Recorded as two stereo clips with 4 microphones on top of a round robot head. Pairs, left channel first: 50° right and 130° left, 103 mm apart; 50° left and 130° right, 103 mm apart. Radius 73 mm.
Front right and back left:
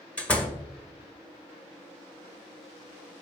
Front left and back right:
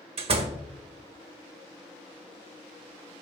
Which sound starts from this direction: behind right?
A door slam, at 0.2 s.